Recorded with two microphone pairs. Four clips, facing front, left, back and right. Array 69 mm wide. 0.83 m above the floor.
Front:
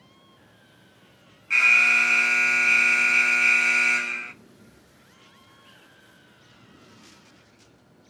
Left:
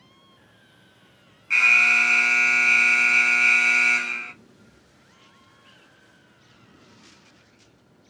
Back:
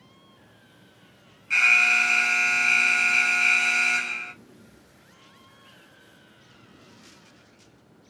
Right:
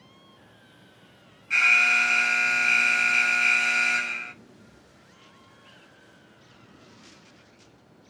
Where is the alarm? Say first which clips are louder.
Left 2 dB, front 1 dB; 75° left, 1.6 m.